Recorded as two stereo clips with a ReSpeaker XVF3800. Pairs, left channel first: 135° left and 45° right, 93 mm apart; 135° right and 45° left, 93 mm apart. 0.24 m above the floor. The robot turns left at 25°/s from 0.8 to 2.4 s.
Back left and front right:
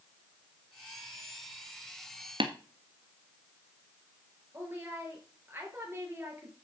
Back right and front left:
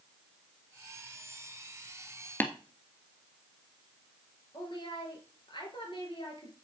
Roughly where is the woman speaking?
Right.